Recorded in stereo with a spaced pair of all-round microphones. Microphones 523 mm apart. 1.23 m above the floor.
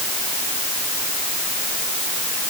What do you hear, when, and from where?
Only background noise.